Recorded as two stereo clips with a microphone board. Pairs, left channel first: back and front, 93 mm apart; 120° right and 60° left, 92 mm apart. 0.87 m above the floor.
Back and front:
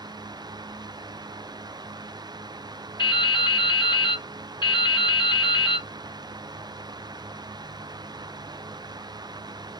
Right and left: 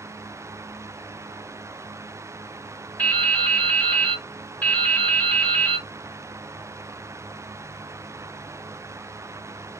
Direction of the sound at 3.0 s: 165° left.